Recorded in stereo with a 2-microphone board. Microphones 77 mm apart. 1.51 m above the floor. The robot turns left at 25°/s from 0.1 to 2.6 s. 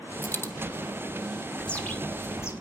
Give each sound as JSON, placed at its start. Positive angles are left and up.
{"t": 0.2, "sound": "a dropped coin", "side_deg": 30, "distance_m": 1.3}
{"t": 1.6, "sound": "a bird", "side_deg": 10, "distance_m": 2.0}